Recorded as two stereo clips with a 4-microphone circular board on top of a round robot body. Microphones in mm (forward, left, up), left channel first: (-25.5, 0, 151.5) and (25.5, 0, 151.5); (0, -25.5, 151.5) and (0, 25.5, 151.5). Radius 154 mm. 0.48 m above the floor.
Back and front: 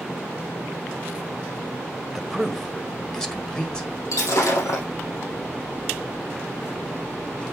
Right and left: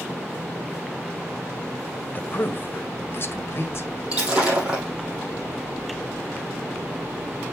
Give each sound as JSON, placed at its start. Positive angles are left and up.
{"t": 2.1, "sound": "a man speaking", "azimuth_deg": -90, "distance_m": 1.6}
{"t": 4.1, "sound": "breaking glass", "azimuth_deg": 160, "distance_m": 3.5}